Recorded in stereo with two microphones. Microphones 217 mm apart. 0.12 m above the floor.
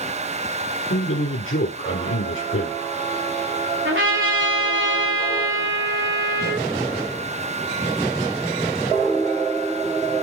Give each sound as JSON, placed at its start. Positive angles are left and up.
{"t": 0.9, "sound": "a man speaking", "side_deg": 70, "distance_m": 3.0}
{"t": 3.9, "sound": "a trumpet", "side_deg": -60, "distance_m": 6.5}